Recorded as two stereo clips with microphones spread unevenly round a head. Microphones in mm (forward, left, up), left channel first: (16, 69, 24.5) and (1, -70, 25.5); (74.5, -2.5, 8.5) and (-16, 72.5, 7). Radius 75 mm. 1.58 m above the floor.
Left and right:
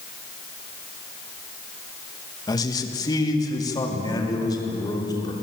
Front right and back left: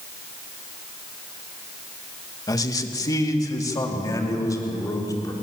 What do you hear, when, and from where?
2.5 s a man speaking: 20° left, 1.9 m